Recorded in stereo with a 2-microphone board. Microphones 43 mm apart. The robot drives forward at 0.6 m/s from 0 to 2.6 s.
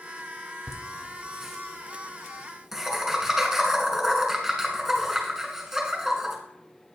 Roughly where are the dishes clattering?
I don't hear dishes clattering.